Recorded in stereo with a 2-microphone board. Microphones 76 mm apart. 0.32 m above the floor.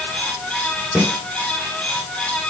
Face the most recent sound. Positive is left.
turn(degrees=-20)  # may be behind; listen again after turning